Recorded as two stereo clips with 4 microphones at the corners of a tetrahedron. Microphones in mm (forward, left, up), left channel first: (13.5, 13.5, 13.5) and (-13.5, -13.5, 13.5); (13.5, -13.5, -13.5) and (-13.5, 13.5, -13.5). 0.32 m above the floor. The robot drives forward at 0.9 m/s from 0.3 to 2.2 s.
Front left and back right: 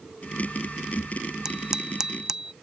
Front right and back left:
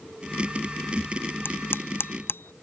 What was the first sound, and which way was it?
A bicycle bell, 60° right.